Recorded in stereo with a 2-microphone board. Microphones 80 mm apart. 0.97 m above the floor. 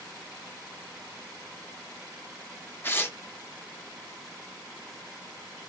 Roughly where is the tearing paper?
Left.